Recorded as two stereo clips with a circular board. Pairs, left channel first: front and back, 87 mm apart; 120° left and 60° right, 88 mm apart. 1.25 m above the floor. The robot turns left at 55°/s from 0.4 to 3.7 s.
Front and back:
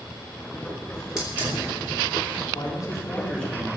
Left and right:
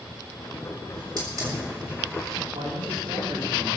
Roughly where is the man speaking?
Ahead right.